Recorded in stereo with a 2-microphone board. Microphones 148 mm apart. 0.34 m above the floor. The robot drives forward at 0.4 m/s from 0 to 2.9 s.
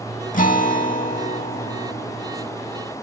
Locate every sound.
0.3 s a guitar: 60° left (ahead or behind), 0.7 m; by 2.5 s 45° left (ahead or behind), 0.9 m